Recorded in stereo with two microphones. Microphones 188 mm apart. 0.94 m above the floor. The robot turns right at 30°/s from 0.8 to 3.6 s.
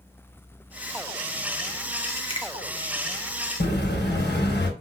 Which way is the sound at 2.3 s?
30° left (ahead or behind).